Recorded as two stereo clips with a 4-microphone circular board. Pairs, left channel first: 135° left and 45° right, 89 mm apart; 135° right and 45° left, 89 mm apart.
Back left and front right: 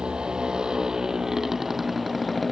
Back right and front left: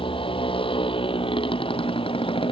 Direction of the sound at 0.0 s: 125° right.